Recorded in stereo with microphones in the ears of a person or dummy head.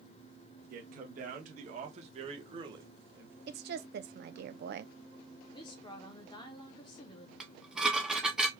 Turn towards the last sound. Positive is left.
turn(degrees=-5)  # may be behind; listen again after turning